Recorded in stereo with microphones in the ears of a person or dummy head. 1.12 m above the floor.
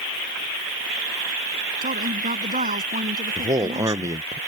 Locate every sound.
1.8 s a woman speaking: 40° right (ahead or behind); by 4.2 s 35° right (ahead or behind)
3.4 s a man speaking: 15° right (ahead or behind)